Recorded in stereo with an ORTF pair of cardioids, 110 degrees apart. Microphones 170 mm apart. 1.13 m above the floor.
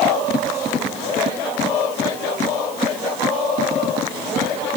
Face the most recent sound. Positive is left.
No sound to turn to.